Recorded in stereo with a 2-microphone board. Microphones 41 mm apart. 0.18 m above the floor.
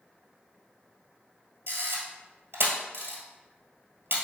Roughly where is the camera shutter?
Right.